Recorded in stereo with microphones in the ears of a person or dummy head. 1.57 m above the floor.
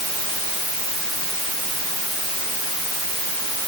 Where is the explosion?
I don't hear an explosion.